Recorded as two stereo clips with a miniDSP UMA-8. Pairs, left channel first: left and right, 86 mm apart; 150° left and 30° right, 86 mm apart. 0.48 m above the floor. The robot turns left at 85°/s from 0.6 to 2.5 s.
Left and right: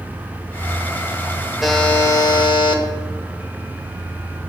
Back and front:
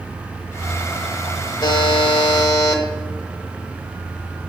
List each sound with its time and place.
1.6 s a buzzer: 175° right, 0.9 m; by 2.8 s 110° left, 0.9 m